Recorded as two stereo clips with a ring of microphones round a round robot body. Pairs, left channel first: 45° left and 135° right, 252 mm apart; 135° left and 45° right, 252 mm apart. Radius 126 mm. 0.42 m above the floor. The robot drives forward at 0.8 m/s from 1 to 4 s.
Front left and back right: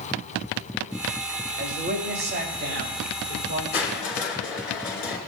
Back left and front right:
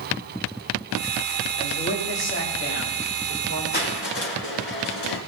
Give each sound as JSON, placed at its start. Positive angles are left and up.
{"t": 1.6, "sound": "a man speaking", "azimuth_deg": 175, "distance_m": 1.8}
{"t": 3.7, "sound": "crushing", "azimuth_deg": 90, "distance_m": 2.0}